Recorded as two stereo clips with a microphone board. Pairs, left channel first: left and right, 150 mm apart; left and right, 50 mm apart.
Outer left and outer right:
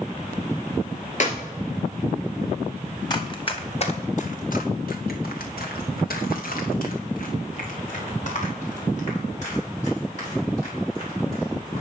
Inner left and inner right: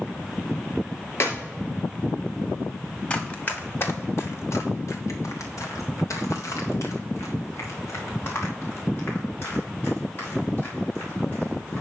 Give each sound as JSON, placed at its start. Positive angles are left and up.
{"t": 1.2, "sound": "a clap", "side_deg": 55, "distance_m": 1.5}
{"t": 3.1, "sound": "running footsteps", "side_deg": 30, "distance_m": 1.7}